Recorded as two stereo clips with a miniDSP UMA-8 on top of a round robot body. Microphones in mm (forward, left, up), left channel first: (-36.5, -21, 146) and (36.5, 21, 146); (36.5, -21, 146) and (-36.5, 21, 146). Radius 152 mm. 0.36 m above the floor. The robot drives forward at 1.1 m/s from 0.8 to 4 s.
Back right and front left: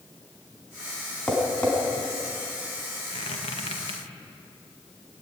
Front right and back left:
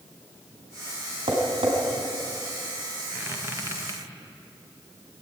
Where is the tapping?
130° left, 4.5 m; by 1.7 s 135° left, 4.5 m.